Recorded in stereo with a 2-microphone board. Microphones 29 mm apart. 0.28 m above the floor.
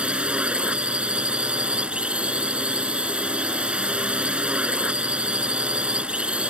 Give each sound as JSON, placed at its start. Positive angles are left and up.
{"t": 0.0, "sound": "a drone", "side_deg": -35}